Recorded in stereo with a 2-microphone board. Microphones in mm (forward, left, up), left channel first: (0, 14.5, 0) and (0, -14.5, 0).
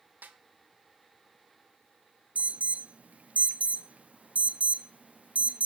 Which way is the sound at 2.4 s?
55° right (ahead or behind).